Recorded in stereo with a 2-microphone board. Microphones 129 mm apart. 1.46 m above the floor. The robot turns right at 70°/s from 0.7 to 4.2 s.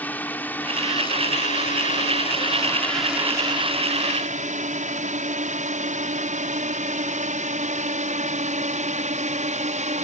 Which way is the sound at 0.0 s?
15° left (ahead or behind).